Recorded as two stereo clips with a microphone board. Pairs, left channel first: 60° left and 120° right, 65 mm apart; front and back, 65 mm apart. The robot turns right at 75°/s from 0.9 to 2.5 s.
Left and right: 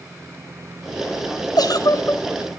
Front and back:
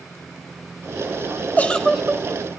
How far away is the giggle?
About 1.0 m.